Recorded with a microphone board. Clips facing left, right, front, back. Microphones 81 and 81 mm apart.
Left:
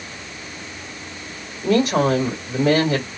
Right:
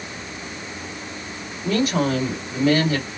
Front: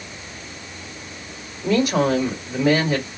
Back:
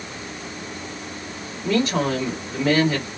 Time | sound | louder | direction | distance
1.6 | a woman speaking | left 4 dB, front 3 dB | 75° left | 2 m